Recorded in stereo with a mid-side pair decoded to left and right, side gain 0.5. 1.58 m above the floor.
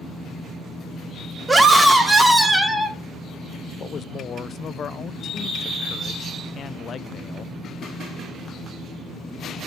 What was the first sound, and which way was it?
A scream, 10° right.